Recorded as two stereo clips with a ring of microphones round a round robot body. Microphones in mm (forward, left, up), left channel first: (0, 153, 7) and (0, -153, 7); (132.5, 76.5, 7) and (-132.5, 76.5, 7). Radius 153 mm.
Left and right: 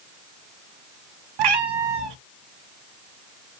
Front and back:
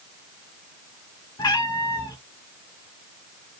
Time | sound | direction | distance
1.4 | a cat meowing | 80° right | 0.6 m